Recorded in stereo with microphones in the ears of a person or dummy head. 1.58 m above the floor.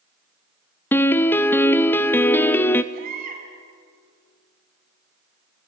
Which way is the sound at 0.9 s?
10° left (ahead or behind).